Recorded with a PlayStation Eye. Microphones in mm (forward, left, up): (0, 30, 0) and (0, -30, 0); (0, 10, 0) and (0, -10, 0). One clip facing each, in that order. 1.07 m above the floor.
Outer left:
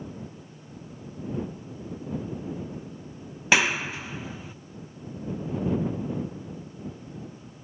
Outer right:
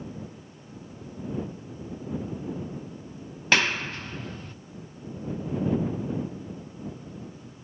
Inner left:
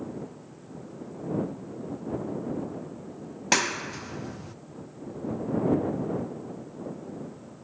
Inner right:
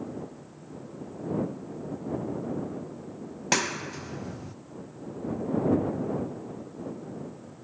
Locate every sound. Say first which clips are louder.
3.5 s a clap: outer left 1 dB, inner left 2 dB; 10° left (ahead or behind)